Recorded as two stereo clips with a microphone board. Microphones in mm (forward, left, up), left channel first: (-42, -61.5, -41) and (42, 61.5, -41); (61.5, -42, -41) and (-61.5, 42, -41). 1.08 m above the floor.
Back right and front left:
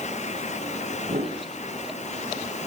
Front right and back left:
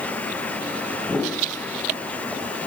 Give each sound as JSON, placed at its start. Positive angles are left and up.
{"t": 1.0, "sound": "a whoosh", "azimuth_deg": 50, "distance_m": 3.0}